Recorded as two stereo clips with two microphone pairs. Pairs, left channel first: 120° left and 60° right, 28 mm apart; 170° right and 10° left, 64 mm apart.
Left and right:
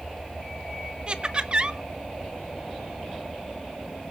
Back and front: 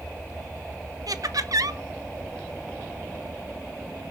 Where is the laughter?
5° right, 1.0 m.